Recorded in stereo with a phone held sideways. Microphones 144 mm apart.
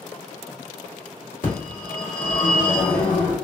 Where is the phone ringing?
70° left (ahead or behind), 1.9 m.